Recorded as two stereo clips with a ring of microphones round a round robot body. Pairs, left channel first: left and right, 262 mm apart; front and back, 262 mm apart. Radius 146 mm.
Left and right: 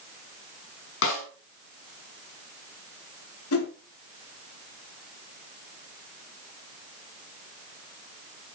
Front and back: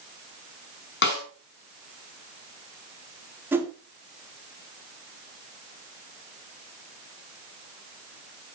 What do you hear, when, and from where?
1.0 s a snare drum: 45° left, 5 m
3.5 s a whoosh: 100° left, 2 m